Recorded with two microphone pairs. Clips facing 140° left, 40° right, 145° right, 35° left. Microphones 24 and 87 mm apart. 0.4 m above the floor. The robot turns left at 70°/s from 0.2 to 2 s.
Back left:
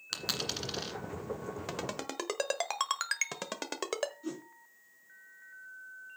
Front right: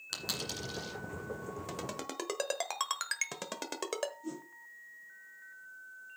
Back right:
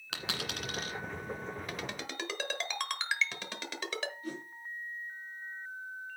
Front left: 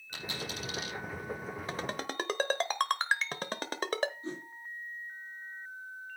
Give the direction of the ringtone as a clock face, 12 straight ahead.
9 o'clock.